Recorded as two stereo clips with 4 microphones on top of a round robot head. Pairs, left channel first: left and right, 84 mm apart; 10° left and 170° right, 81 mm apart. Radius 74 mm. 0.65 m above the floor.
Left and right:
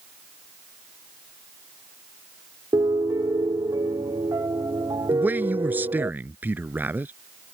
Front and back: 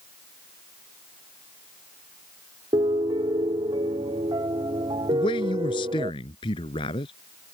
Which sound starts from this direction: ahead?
A man speaking, at 5.1 s.